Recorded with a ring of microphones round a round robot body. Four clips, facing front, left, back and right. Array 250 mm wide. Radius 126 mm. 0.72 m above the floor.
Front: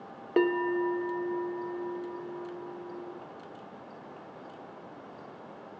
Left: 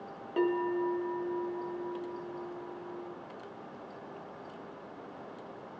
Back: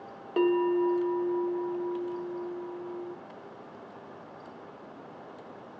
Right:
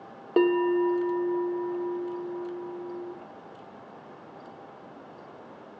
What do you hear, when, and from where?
0.4 s a bell: 65° right, 0.6 m